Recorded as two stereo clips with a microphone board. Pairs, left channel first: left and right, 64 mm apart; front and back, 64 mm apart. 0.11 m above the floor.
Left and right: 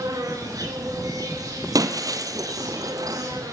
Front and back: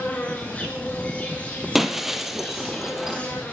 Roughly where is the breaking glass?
Right.